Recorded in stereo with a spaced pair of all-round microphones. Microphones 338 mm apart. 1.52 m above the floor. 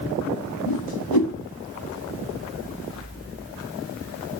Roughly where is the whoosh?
Left.